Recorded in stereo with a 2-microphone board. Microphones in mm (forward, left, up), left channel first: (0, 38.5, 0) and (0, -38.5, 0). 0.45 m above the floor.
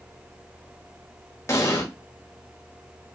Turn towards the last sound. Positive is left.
turn(degrees=35)  # may be behind; listen again after turning